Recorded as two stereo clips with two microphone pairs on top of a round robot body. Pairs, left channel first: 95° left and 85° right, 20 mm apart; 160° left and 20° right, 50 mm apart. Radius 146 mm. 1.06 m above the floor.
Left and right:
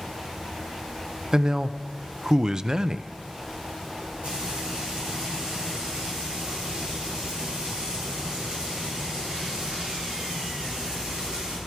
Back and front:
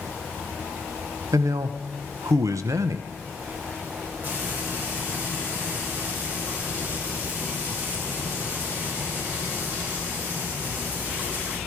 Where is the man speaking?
30° right, 0.5 m.